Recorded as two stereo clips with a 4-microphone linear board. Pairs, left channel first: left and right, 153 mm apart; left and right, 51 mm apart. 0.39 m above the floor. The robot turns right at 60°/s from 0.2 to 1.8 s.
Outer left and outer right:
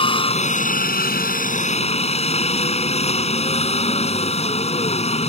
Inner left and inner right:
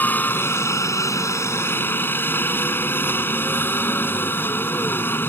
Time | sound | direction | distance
0.0 | a helicopter | 40° left | ?